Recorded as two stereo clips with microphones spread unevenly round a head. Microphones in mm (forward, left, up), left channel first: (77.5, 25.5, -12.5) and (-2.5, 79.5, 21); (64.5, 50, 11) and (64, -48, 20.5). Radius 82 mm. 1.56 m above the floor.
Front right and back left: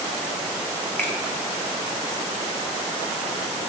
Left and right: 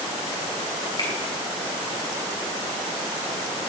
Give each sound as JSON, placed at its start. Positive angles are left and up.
{"t": 1.0, "sound": "a finger snap", "azimuth_deg": 45, "distance_m": 3.5}